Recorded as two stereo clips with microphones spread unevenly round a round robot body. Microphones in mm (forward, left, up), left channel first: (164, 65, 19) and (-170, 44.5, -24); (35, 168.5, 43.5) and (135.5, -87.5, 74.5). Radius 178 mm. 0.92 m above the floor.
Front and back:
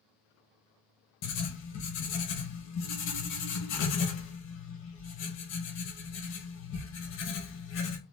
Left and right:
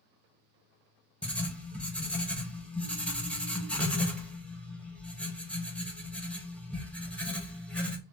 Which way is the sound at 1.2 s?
40° left.